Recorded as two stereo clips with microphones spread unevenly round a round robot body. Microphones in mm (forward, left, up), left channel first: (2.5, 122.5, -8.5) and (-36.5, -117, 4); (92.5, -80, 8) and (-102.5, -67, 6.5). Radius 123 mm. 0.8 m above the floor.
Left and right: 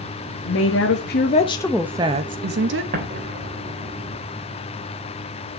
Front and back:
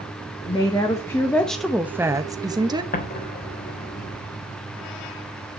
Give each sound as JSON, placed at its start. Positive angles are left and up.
{"t": 0.5, "sound": "a woman speaking", "azimuth_deg": 70, "distance_m": 1.8}
{"t": 2.9, "sound": "an explosion", "azimuth_deg": -40, "distance_m": 3.0}